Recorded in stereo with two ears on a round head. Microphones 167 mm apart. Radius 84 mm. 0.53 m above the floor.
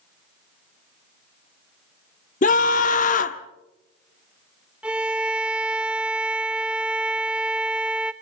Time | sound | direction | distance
2.4 | a scream | 45° left (ahead or behind) | 1.1 m
4.8 | a violin | 5° right (ahead or behind) | 0.7 m